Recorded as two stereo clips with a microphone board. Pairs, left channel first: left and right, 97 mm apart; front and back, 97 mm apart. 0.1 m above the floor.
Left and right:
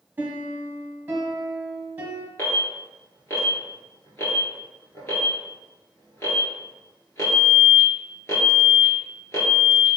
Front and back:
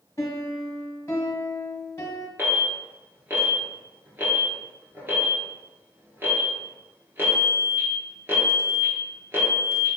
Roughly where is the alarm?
Behind left.